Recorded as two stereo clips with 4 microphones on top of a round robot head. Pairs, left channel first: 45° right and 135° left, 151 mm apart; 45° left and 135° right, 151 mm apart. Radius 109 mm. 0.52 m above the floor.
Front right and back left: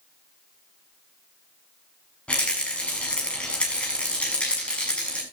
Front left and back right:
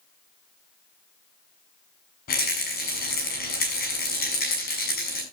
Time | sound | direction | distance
2.3 | a rattle | 35° left | 5.5 m